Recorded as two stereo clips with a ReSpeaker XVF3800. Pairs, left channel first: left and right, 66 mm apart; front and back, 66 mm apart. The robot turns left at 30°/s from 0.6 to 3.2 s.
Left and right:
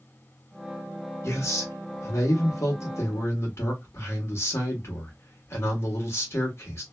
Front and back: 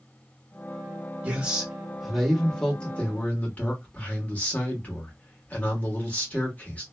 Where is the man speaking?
120° left, 1.2 m; by 6.8 s 60° left, 1.2 m.